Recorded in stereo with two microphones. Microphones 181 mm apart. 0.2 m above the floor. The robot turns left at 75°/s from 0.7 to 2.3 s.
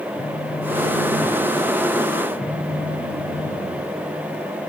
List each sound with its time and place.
0.1 s a phone buzzing: 150° right, 2.5 m; by 4.1 s 90° left, 2.5 m